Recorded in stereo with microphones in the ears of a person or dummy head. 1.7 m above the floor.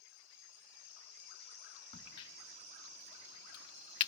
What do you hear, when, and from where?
1.9 s a crack: 30° left (ahead or behind), 1.4 m